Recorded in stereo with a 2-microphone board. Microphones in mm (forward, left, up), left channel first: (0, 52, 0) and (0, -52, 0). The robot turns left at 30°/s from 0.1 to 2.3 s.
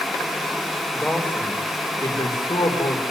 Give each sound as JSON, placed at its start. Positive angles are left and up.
{"t": 0.9, "sound": "a man speaking", "azimuth_deg": 175, "distance_m": 5.0}